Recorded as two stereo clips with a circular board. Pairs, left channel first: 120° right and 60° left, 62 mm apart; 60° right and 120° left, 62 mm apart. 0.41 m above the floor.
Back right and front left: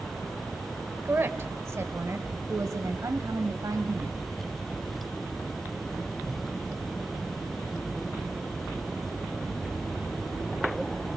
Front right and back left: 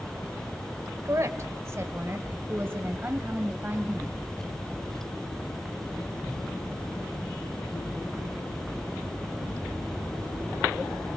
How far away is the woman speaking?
About 1.3 m.